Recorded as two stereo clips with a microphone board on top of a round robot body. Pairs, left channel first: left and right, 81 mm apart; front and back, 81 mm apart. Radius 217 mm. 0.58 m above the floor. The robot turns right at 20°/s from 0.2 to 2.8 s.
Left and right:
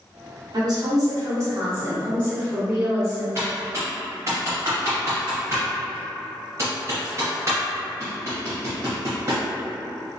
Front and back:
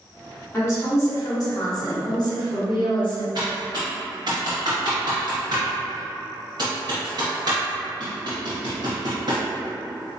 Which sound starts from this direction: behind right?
Typing on a keyboard, at 3.4 s.